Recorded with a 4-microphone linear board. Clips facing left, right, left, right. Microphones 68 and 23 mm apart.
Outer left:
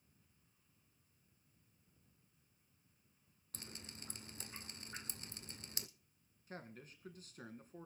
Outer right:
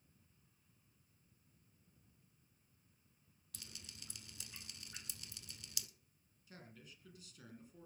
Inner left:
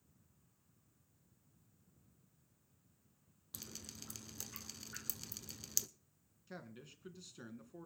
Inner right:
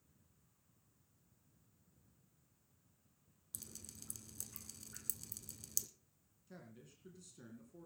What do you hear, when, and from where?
3.5 s dripping: 40° left (ahead or behind), 0.8 m
6.5 s a man speaking: 45° left (ahead or behind), 2 m